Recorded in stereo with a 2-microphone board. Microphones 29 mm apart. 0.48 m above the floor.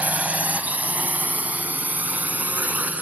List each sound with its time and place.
0.0 s a drone: 65° right (ahead or behind); by 3.0 s 80° right